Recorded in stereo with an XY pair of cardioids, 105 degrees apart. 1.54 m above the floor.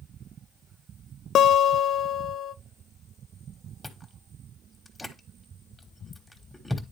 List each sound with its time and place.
1.4 s a guitar: 60° left, 0.5 m
3.8 s chewing: 15° left, 1.3 m